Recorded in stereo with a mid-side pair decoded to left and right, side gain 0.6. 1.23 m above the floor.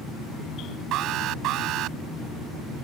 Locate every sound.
0.9 s an alarm: 65° right